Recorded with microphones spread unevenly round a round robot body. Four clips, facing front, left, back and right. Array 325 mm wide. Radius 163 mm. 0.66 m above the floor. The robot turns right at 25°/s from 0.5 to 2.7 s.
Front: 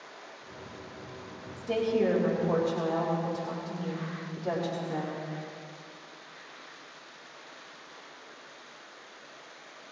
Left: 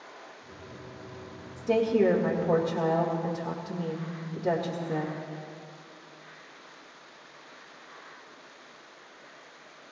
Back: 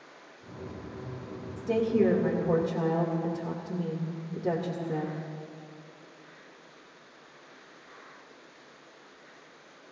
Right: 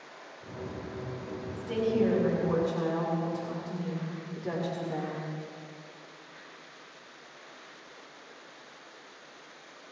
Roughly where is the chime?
No chime in this recording.